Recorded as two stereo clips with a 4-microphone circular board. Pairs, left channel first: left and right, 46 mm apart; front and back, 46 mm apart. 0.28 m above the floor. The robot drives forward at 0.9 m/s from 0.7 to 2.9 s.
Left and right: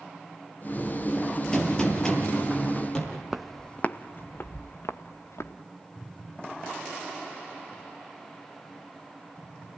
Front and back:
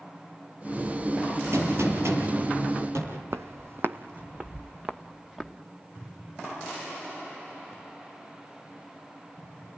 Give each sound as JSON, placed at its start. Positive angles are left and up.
{"t": 1.5, "sound": "a gunshot", "azimuth_deg": 165, "distance_m": 5.5}
{"t": 3.3, "sound": "footsteps", "azimuth_deg": -170, "distance_m": 0.7}